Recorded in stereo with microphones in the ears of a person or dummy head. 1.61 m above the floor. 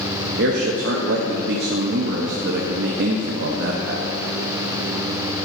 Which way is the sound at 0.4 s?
65° right (ahead or behind).